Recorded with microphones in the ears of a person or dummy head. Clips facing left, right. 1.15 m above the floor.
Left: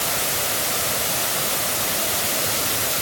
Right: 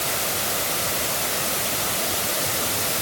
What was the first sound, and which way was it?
Only background noise.